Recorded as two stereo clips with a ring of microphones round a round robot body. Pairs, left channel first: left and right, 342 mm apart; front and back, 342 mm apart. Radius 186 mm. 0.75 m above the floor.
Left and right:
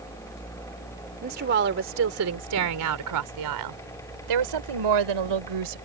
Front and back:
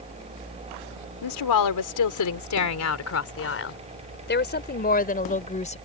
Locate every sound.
1.2 s a woman speaking: 20° right; by 5.8 s 70° right